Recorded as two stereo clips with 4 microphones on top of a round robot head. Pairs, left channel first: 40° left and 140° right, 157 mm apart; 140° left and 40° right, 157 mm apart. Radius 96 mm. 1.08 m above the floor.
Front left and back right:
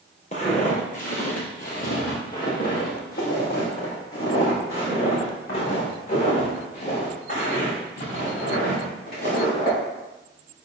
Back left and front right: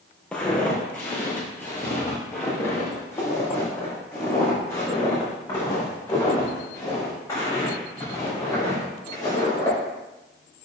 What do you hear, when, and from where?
0.3 s footsteps: 65° left, 1.3 m; by 9.8 s 70° left, 6 m